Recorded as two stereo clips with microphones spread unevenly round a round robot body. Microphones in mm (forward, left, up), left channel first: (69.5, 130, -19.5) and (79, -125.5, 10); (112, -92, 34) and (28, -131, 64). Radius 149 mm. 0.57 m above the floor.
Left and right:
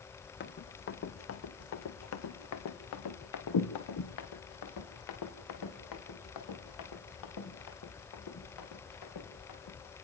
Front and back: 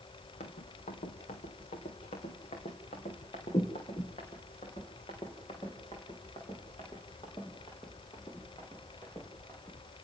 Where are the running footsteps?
45° left, 2 m; by 9.9 s 105° left, 5.5 m.